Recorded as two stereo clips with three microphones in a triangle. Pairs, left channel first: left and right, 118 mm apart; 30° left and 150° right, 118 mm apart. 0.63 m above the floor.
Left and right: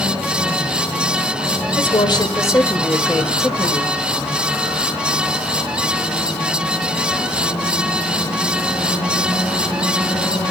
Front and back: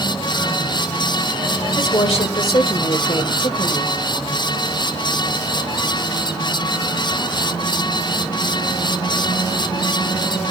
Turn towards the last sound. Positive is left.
turn(degrees=-15)